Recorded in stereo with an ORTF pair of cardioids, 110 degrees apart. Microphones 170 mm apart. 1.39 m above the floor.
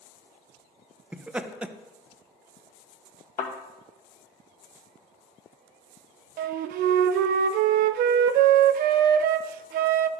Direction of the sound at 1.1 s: 10° right.